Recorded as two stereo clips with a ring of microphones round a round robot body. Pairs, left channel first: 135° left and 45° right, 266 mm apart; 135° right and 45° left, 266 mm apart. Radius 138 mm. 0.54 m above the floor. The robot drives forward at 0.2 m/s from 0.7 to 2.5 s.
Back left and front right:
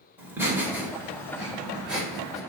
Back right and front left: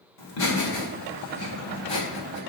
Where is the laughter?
125° right, 2 m; by 2.4 s 135° right, 2.5 m.